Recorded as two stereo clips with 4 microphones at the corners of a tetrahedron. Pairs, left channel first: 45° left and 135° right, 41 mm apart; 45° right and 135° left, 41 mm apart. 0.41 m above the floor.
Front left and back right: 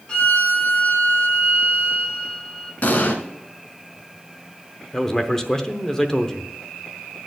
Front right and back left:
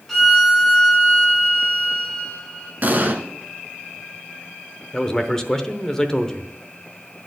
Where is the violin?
35° left, 1.5 m.